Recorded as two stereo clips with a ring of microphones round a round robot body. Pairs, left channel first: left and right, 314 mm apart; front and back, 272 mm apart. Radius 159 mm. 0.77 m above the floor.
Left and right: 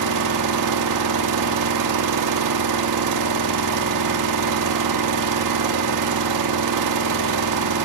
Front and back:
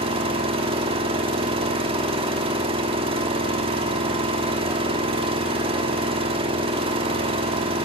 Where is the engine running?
110° right, 1.6 m.